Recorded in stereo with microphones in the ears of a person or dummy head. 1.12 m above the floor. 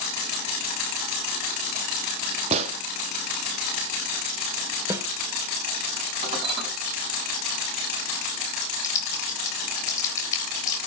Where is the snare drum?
25° right (ahead or behind), 1.9 m.